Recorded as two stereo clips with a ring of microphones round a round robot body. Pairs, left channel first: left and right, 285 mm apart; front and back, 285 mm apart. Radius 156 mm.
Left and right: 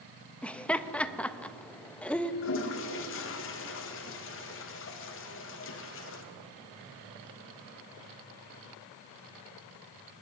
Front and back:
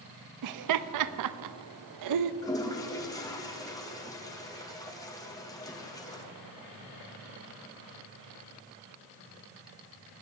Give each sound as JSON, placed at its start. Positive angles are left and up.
{"t": 0.4, "sound": "laughter", "azimuth_deg": 175, "distance_m": 0.6}
{"t": 2.4, "sound": "a toilet flushing", "azimuth_deg": 75, "distance_m": 0.9}